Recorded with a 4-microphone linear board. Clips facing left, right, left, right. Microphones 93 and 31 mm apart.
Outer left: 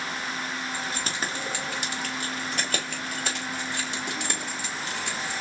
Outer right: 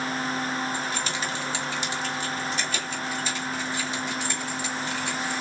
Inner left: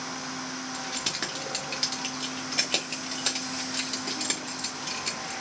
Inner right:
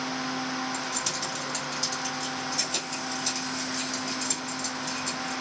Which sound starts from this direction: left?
Keys jangling, at 0.7 s.